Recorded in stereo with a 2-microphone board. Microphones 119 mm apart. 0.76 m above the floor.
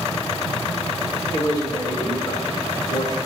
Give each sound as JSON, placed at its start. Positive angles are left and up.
{"t": 1.3, "sound": "a man speaking", "side_deg": 35, "distance_m": 2.0}